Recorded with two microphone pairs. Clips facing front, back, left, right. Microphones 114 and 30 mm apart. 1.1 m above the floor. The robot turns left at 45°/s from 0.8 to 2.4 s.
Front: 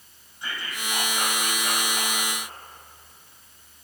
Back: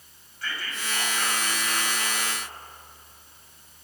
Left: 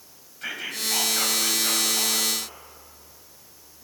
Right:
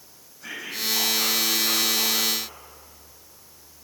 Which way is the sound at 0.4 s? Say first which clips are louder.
Even, left 1 dB; 70° left.